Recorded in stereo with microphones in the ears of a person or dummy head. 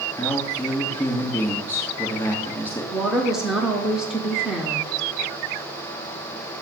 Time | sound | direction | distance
0.2 | a man speaking | 10° left (ahead or behind) | 1.8 m
2.9 | a woman speaking | centre (ahead or behind) | 0.6 m